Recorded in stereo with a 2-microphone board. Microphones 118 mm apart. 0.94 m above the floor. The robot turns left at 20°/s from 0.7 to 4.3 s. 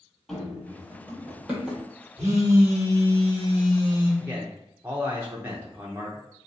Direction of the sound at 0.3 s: 5° left (ahead or behind).